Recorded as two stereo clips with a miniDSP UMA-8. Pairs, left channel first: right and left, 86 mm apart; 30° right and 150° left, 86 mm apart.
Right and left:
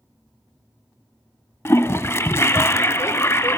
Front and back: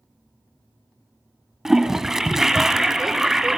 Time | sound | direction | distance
1.6 | a toilet flushing | 130° right | 0.6 m